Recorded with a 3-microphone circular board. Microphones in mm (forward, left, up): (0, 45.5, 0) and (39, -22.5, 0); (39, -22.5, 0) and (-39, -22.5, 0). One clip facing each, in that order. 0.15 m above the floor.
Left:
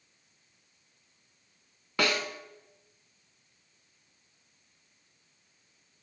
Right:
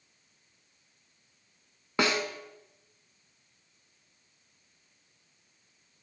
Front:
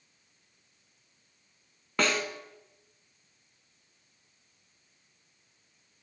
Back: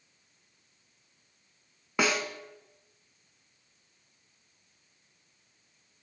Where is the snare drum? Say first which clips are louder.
Right 1 dB, even; 110° right, 0.7 m.